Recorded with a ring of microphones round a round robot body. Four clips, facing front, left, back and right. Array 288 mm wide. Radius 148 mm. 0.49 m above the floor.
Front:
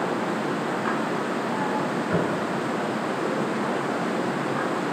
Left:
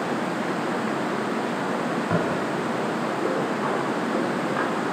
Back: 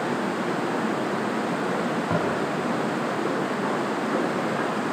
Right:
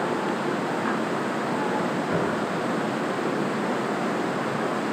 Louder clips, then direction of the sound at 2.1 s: Left 2 dB, front 1 dB; 140° left.